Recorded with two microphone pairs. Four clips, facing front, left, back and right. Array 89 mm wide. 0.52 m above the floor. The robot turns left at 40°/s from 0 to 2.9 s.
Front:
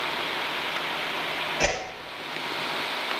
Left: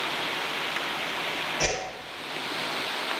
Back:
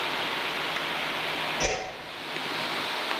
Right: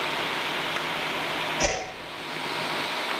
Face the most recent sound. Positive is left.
turn(degrees=-50)